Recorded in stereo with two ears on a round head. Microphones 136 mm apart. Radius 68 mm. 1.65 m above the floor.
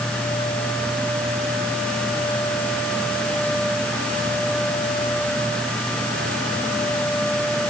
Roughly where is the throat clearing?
I don't hear throat clearing.